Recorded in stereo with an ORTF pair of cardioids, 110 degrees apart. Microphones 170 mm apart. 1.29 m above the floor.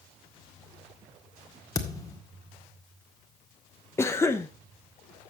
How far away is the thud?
About 1.8 m.